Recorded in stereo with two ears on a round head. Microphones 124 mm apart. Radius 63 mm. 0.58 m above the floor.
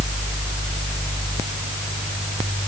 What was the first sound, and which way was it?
Only background noise.